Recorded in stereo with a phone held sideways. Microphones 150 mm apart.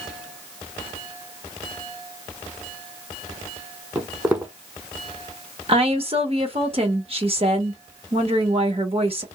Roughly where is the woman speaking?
Right.